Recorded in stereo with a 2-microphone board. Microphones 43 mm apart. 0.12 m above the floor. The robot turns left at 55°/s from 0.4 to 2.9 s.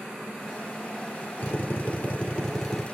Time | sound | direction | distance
1.4 | a drill | 80° left | 2.5 m